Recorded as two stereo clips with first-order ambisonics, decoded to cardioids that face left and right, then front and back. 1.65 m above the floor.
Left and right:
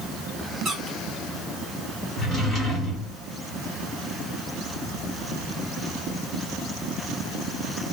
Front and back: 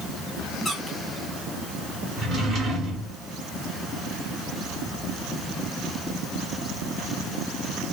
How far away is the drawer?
About 1.4 m.